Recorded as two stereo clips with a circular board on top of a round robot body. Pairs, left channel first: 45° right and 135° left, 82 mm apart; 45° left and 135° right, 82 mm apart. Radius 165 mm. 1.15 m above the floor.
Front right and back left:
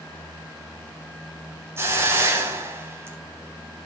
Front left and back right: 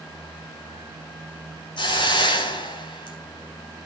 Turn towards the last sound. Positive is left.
turn(degrees=75)